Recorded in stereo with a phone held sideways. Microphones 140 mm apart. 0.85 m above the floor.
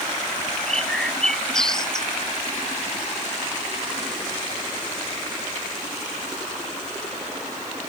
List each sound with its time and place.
0.6 s a bird: 5° left (ahead or behind)